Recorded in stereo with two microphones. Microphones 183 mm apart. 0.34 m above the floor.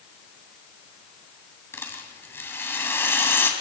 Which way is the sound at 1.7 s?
10° left (ahead or behind).